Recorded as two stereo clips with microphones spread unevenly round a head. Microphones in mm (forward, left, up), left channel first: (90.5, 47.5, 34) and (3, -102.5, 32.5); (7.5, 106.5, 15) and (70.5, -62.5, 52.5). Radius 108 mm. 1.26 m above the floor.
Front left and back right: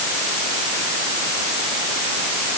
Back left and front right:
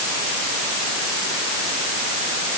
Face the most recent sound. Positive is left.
No sound to turn to.